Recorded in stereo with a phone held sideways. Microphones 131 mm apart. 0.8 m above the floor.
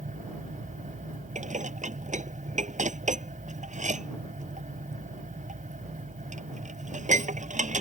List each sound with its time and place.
0.0 s a fan: 80° right
1.4 s dishes clattering: 70° right (ahead or behind)